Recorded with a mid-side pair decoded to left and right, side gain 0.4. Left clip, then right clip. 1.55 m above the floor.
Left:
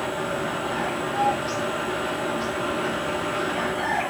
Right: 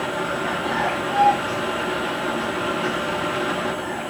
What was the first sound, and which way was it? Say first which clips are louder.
A fan: right 3 dB; 40° right.